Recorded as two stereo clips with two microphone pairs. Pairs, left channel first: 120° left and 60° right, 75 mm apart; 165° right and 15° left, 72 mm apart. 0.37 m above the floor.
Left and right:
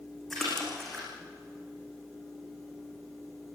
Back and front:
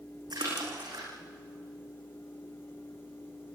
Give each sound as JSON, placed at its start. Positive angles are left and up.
{"t": 0.3, "sound": "a splash", "azimuth_deg": 35, "distance_m": 9.0}